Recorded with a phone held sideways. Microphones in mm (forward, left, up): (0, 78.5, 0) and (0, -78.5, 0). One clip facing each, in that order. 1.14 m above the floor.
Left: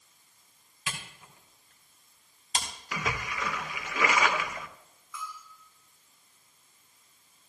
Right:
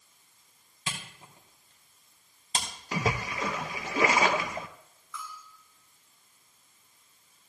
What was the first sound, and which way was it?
A camera shutter, 30° right (ahead or behind).